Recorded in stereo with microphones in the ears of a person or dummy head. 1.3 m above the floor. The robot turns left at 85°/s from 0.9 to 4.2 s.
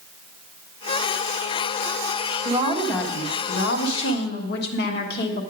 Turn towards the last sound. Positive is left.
turn(degrees=60)